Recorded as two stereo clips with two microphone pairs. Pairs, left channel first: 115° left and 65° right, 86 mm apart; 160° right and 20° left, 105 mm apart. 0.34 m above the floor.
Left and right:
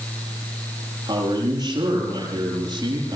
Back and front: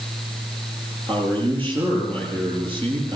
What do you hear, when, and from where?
1.1 s a man speaking: 20° right, 9.5 m